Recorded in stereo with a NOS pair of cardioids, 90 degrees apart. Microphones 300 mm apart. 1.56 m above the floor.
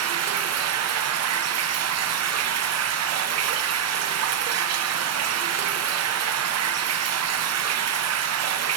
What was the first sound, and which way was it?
Running water, 60° right.